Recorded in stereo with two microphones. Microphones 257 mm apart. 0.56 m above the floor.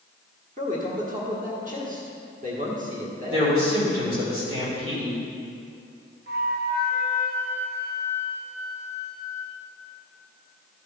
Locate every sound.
0.6 s a man speaking: 35° right (ahead or behind), 1.4 m
3.3 s a man speaking: 65° right (ahead or behind), 2.5 m
6.3 s a flute: 40° right (ahead or behind), 1.2 m